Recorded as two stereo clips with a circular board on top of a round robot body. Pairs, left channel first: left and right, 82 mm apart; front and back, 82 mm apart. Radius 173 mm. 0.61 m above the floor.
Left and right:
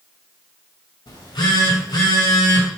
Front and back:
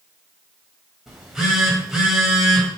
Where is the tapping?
I don't hear tapping.